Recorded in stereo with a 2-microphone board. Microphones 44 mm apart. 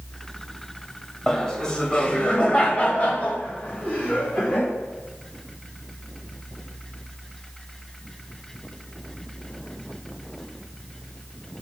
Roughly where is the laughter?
Centre.